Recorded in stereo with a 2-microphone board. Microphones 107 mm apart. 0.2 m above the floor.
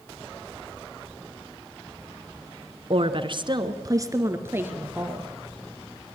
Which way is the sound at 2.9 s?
60° right (ahead or behind).